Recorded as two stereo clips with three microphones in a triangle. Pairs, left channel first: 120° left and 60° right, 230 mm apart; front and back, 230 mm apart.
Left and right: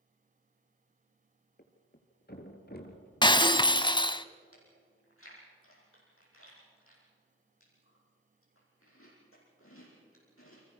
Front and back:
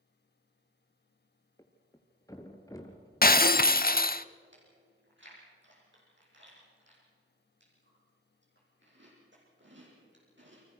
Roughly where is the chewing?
Behind left.